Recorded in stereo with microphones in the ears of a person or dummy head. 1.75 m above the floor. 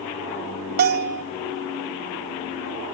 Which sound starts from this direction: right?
A bell, at 0.8 s.